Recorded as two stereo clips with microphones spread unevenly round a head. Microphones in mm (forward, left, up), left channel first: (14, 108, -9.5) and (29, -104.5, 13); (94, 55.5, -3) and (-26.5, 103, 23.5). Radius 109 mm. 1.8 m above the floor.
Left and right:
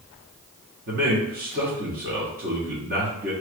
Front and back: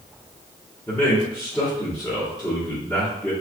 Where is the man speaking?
115° right, 1.1 m.